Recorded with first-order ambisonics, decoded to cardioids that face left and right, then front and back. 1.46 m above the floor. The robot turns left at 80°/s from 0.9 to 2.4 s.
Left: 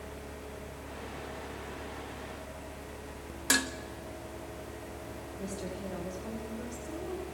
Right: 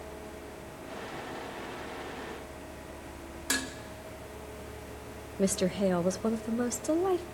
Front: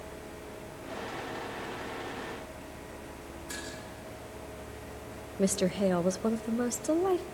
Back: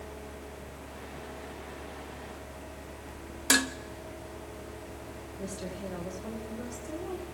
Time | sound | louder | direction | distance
3.5 | dishes clattering | left 4 dB, back 16 dB | 165° left | 1.4 m
5.4 | a woman speaking | right 13 dB, front 12 dB | 50° right | 1.4 m